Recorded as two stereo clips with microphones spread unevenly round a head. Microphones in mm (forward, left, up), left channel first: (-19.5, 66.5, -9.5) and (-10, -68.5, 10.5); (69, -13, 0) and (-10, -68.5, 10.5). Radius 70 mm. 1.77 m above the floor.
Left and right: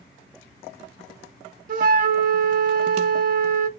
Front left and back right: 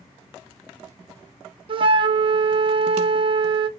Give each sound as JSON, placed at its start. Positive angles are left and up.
{"t": 1.7, "sound": "a flute", "azimuth_deg": -110, "distance_m": 0.7}